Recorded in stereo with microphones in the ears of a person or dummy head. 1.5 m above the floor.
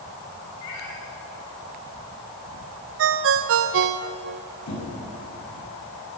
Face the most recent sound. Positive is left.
turn(degrees=80)